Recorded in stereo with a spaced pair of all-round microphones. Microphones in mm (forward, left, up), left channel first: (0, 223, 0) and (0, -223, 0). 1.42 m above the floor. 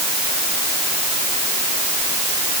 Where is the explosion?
I don't hear an explosion.